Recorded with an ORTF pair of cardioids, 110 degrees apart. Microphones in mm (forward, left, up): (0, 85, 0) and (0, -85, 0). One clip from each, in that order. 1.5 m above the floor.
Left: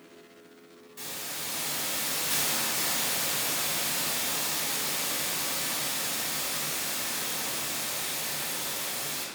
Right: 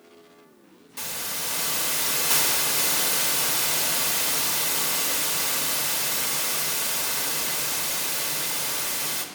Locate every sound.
1.0 s a hiss: 70° right, 0.9 m